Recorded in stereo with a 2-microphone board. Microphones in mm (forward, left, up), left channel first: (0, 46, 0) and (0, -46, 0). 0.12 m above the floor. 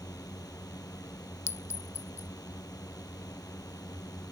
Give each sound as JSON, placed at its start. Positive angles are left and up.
{"t": 0.0, "sound": "a drone", "side_deg": 45}
{"t": 1.5, "sound": "a clink", "side_deg": 30}